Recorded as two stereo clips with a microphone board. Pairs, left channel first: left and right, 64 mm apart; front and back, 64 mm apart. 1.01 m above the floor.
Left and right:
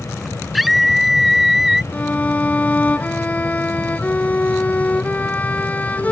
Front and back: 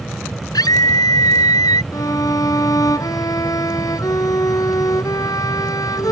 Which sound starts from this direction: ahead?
A scream, at 0.5 s.